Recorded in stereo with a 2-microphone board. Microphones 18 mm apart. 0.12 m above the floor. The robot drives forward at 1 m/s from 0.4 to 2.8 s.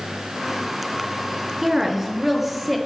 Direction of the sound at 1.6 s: 25° right (ahead or behind).